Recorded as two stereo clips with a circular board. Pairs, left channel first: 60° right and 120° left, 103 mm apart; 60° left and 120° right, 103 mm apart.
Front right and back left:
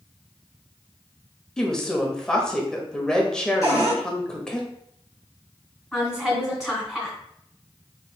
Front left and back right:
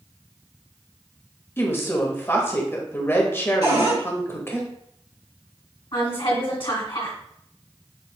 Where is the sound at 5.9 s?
30° left, 1.9 m.